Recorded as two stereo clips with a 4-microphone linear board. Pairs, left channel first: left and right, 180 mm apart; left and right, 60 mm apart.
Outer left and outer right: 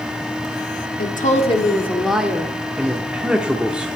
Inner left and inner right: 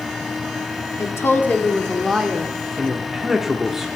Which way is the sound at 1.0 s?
50° left (ahead or behind).